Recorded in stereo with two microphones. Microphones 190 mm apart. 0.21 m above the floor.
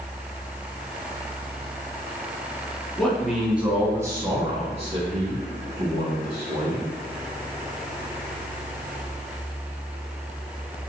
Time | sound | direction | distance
3.0 | a man speaking | 5° left (ahead or behind) | 1.7 m